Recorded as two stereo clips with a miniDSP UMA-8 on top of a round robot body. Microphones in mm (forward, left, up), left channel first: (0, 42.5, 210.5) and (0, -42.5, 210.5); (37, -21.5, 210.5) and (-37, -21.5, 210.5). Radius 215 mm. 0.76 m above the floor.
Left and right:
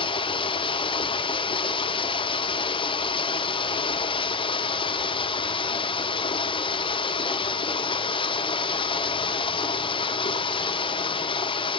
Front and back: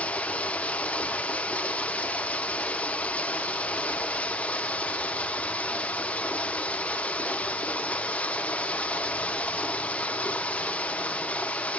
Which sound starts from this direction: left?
Running water, at 0.0 s.